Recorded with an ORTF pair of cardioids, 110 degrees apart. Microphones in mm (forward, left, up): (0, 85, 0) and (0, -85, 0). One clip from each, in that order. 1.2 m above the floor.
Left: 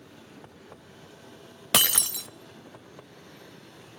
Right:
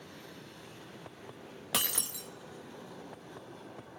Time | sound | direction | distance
1.7 | breaking glass | 45° left | 0.9 m